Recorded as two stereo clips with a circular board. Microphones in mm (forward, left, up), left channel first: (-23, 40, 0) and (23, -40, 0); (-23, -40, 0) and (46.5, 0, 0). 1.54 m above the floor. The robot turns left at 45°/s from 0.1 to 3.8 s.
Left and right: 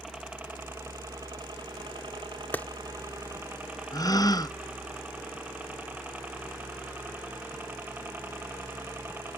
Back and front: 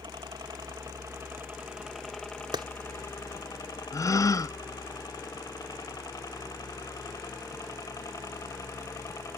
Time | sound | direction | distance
0.0 | a helicopter | 25° left | ?
2.5 | a clap | 50° left | ?
3.9 | a gasp | 165° left | ?